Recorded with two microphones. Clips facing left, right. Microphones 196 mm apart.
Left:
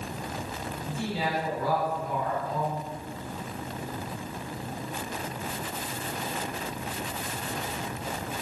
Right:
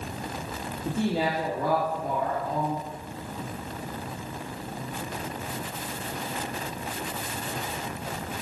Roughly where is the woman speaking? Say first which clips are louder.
Right 6 dB; right.